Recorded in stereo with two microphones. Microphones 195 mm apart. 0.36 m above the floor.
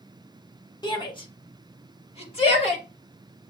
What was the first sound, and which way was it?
A shout, 20° left (ahead or behind).